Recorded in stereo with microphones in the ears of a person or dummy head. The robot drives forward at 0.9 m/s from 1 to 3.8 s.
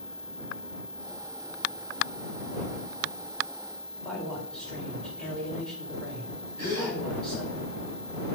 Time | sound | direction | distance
4.0 | a man speaking | 5° left (ahead or behind) | 1.3 m
6.6 | a gasp | 25° right (ahead or behind) | 1.7 m